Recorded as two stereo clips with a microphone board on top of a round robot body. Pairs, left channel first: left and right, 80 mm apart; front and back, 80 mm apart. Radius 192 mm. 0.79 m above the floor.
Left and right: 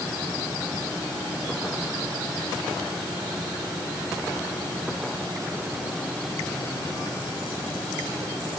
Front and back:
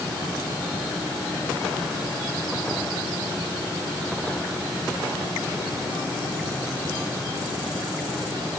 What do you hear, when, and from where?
Only background noise.